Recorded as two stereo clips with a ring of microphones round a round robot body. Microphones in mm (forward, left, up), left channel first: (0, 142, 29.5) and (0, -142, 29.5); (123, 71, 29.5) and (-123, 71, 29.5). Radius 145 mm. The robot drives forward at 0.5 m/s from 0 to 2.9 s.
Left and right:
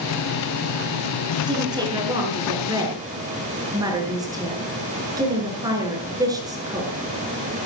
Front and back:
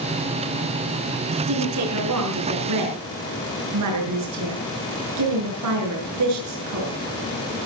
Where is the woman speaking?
165° right, 5 m; by 6.9 s 170° right, 5.5 m.